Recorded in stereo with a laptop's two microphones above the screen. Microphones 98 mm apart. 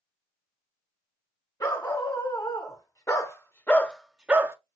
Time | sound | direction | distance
1.6 | a dog barking | 40° left (ahead or behind) | 1.7 m